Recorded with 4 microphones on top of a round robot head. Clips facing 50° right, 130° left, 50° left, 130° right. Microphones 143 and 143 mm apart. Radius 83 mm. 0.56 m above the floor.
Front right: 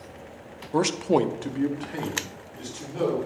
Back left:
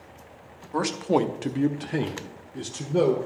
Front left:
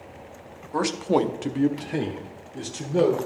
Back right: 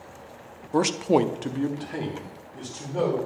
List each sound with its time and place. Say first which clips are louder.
0.7 s a man speaking: front right 1 dB, back right 1 dB; 90° right, 0.7 m; by 3.2 s 105° left, 1.6 m